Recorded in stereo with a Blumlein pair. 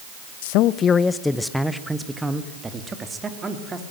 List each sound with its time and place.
0.4 s a man speaking: 55° left, 0.6 m; by 3.8 s 15° right, 3 m